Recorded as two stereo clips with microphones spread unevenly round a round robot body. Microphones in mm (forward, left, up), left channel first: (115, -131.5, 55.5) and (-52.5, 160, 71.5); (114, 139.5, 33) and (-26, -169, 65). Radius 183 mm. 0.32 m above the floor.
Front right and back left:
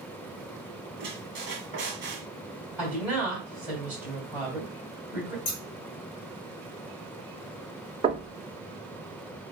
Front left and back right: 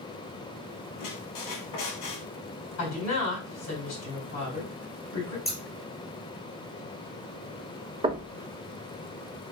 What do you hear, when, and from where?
1.0 s a squeak: 60° left, 1.4 m
2.8 s a woman speaking: 35° left, 2.5 m
5.5 s scissors: 25° right, 1.5 m
8.0 s knocking: straight behind, 0.5 m